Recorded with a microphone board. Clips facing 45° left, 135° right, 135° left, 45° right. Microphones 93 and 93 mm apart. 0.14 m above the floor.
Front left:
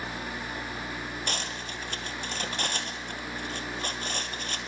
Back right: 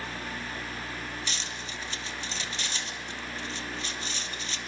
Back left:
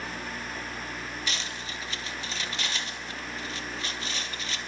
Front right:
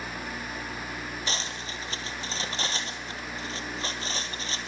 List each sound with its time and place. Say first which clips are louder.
1.3 s cutlery clinking: front left 3 dB, front right 1 dB; 10° left, 2 m